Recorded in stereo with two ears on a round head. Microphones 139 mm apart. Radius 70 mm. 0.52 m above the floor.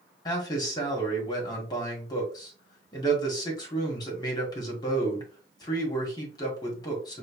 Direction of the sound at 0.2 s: 25° left (ahead or behind).